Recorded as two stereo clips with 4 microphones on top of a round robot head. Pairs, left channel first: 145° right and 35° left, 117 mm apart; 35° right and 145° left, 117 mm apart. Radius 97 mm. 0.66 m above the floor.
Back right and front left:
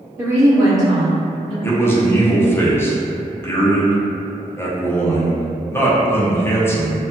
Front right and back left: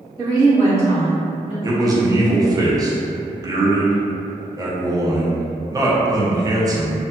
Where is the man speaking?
165° left, 0.7 m.